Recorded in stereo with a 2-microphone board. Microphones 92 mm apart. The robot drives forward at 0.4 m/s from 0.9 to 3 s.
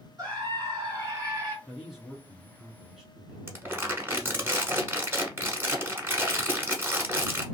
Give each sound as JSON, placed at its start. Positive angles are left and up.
{"t": 0.2, "sound": "a scream", "side_deg": -40, "distance_m": 2.0}
{"t": 1.7, "sound": "a man speaking", "side_deg": -5, "distance_m": 2.0}
{"t": 3.5, "sound": "crumpling", "side_deg": -25, "distance_m": 0.9}